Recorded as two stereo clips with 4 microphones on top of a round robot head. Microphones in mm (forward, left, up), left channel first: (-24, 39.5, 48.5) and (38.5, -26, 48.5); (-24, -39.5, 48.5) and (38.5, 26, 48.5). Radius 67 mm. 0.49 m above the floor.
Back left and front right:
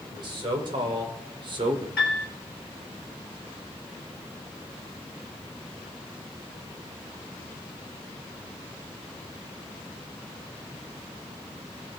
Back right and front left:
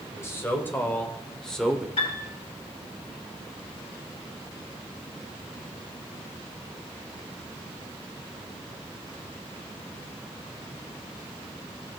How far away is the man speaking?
About 2.5 m.